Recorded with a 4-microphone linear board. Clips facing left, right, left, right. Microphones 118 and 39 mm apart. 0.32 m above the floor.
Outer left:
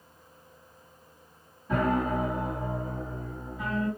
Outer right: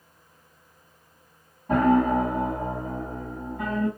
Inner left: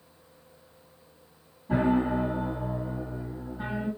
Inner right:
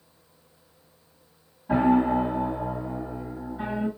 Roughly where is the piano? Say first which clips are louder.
Outer right 7 dB, inner right 4 dB; right.